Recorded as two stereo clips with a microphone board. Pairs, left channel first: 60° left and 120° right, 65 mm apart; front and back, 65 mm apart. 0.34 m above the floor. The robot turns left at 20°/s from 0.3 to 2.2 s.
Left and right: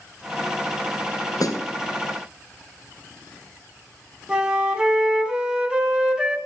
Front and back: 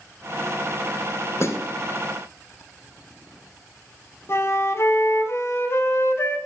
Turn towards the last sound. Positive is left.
turn(degrees=-45)